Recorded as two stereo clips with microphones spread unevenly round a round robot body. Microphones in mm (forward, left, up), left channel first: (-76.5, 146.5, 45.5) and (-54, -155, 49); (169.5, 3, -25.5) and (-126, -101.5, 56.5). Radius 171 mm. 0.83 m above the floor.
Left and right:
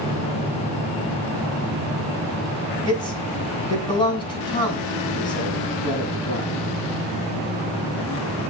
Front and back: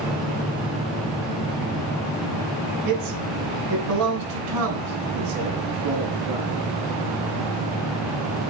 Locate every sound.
2.9 s a man speaking: 160° left, 6.5 m